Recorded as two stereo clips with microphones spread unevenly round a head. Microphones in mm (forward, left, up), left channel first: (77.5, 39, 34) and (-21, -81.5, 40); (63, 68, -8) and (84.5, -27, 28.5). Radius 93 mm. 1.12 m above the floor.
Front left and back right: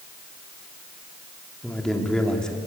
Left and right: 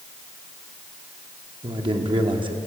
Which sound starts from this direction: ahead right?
A man speaking, at 1.6 s.